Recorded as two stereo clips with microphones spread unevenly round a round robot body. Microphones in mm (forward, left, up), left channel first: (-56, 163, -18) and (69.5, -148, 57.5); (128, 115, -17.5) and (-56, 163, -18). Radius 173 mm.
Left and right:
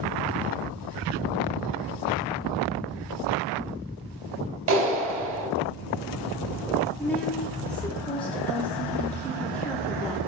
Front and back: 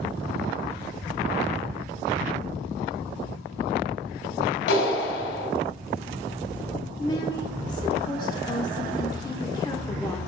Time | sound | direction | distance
4.7 | a clap | 10° right | 2 m
7.0 | a woman speaking | 40° left | 1.1 m